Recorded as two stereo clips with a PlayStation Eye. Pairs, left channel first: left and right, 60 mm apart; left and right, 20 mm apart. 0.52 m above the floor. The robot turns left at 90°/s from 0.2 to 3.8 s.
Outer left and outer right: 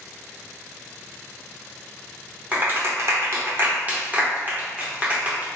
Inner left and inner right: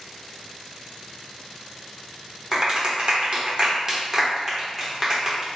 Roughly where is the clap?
Right.